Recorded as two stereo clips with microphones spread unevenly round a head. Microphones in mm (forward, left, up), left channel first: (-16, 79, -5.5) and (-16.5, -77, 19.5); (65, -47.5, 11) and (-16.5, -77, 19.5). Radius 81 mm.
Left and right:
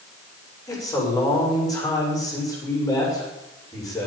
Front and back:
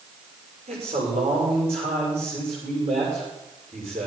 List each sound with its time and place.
0.7 s a man speaking: 160° left, 6.5 m